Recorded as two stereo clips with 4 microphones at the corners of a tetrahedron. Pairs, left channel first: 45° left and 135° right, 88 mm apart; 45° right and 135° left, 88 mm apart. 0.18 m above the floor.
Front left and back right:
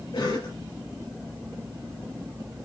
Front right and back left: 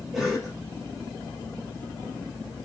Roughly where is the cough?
Ahead left.